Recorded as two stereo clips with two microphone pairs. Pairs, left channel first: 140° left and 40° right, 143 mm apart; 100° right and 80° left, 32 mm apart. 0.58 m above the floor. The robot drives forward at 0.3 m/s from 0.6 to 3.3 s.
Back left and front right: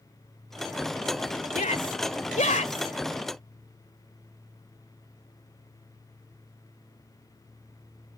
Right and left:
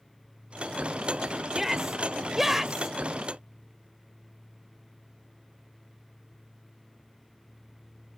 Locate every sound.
1.5 s a shout: 155° left; by 3.0 s 160° left